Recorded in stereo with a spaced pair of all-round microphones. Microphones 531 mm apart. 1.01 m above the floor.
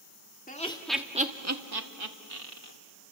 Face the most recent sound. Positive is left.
turn(degrees=-80)